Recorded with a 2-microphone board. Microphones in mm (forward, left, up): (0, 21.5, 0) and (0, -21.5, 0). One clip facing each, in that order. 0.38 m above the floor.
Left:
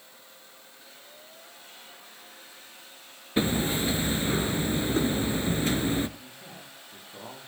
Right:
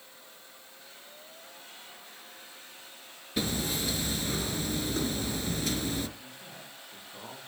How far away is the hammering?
About 1.3 m.